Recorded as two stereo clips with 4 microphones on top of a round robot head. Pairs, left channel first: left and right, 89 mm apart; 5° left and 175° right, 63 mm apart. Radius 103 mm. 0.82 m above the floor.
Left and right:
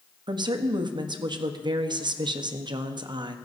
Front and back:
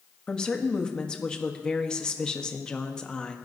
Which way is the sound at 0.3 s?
70° right.